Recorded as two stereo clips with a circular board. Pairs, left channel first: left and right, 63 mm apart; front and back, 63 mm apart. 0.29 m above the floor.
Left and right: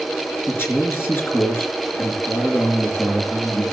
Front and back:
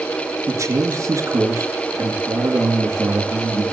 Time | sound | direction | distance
0.5 | a man speaking | 145° left | 4.5 m